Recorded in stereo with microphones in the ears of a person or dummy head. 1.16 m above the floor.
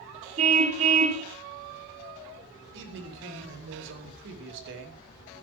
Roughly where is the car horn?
Right.